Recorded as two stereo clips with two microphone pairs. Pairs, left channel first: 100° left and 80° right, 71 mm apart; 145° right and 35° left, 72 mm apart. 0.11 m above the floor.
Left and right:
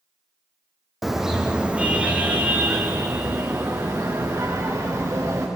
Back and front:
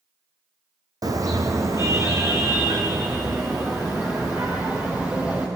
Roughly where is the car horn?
Ahead.